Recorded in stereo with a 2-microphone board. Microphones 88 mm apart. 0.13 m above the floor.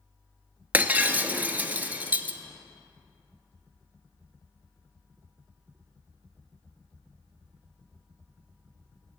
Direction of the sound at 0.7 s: 20° right (ahead or behind).